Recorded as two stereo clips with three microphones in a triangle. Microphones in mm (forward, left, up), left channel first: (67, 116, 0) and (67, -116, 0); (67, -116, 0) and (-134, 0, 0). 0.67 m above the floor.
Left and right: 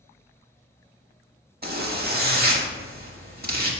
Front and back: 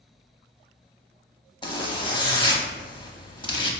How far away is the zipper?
About 0.6 m.